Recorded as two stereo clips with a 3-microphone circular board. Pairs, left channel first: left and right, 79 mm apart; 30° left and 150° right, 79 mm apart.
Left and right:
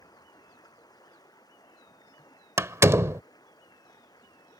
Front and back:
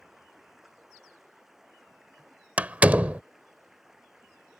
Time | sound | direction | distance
0.0 | running water | 125° left | ?
2.6 | a door slam | 90° right | ?